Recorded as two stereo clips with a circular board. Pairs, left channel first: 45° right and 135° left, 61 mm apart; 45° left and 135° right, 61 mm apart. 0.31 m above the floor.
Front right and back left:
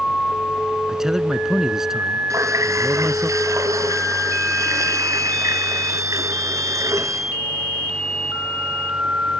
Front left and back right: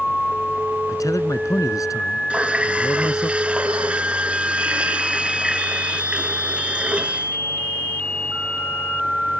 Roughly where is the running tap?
Behind left.